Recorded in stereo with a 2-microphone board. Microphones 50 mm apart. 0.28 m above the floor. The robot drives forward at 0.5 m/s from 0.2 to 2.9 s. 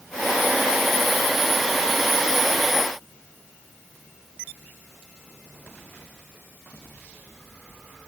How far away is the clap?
I don't hear a clap.